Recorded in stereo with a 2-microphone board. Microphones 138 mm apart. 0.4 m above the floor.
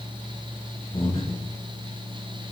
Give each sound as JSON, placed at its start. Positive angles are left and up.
{"t": 0.9, "sound": "breathing", "side_deg": 40, "distance_m": 1.7}